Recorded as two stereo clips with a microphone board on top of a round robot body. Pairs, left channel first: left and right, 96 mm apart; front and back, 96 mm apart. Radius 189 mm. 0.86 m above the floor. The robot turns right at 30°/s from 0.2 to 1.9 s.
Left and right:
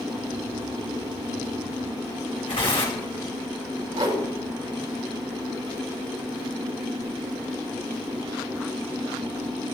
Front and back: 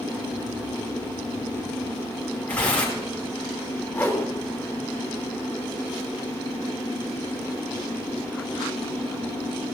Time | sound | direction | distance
2.5 | tearing paper | 75° left | 5.5 m
3.9 | a whoosh | 70° right | 3 m